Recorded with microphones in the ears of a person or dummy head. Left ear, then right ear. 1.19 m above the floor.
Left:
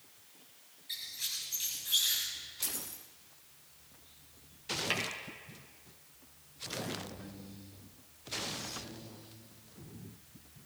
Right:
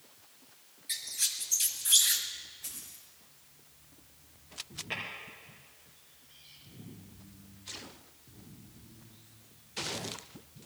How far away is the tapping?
About 4.5 m.